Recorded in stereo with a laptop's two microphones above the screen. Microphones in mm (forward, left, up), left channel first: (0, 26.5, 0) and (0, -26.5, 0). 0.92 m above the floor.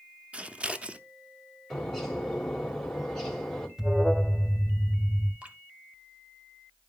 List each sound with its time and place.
0.3 s scissors: 20° right (ahead or behind), 0.6 m
1.7 s a bird: 10° left (ahead or behind), 3 m
3.8 s an alarm: 10° right (ahead or behind), 1.7 m
5.4 s dripping: 25° right (ahead or behind), 1.8 m